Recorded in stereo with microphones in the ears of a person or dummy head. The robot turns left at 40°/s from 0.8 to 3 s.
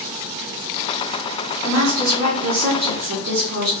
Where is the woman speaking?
65° right, 1.5 m; by 3.7 s 120° right, 1.5 m.